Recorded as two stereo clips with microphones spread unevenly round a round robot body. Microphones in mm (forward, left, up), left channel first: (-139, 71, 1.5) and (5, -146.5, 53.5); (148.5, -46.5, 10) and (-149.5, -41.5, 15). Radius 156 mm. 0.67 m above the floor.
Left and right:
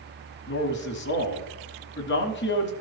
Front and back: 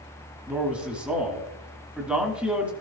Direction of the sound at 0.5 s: 90° left.